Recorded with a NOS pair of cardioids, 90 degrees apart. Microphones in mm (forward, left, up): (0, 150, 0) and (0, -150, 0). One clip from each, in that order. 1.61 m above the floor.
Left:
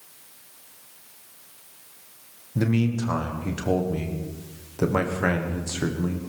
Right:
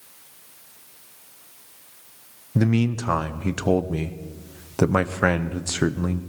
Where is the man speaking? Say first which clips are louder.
Right 2 dB; 55° right, 1.1 m.